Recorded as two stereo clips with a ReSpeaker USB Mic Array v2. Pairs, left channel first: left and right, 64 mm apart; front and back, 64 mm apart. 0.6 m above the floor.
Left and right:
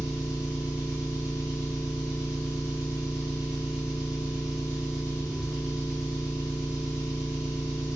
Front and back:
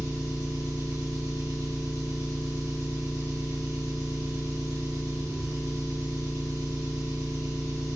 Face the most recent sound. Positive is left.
turn(degrees=-165)